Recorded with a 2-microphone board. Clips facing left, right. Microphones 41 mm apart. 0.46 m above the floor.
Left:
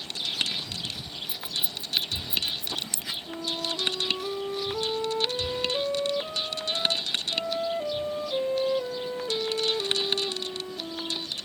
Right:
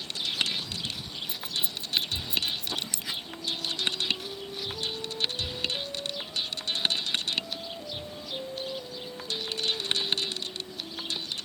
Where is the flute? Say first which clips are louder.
Left 5 dB; 75° left (ahead or behind).